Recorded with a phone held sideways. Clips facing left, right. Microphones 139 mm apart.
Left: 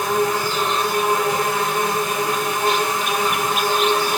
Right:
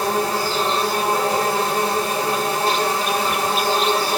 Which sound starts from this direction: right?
An insect, at 0.0 s.